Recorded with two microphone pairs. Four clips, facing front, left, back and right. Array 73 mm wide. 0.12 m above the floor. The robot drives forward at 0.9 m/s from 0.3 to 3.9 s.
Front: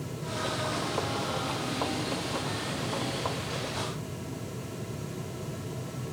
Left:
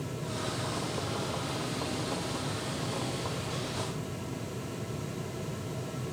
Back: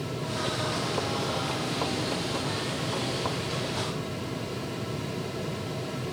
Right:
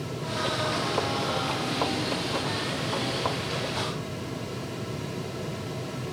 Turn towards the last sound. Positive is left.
No sound to turn to.